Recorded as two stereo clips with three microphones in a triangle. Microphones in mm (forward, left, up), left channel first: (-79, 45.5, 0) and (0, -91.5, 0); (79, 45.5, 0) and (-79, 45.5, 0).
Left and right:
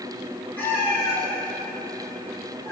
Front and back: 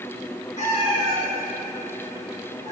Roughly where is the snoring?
I don't hear snoring.